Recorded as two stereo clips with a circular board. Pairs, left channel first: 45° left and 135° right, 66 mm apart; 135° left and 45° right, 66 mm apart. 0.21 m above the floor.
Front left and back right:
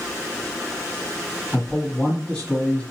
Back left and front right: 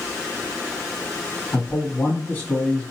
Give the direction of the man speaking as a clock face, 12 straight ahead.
8 o'clock.